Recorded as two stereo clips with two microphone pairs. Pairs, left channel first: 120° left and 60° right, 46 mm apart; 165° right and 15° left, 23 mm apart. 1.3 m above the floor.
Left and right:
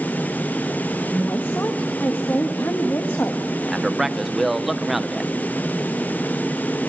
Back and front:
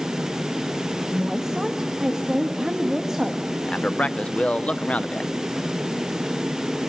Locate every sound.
1.1 s a woman speaking: 80° left, 1.4 m
3.6 s a man speaking: 150° right, 0.7 m